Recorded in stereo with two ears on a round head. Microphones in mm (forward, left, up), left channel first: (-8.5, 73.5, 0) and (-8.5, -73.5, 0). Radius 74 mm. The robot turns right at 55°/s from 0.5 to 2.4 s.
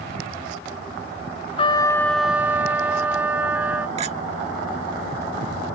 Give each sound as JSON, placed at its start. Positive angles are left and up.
{"t": 1.6, "sound": "a trumpet", "azimuth_deg": 145}
{"t": 4.0, "sound": "a clink", "side_deg": -40}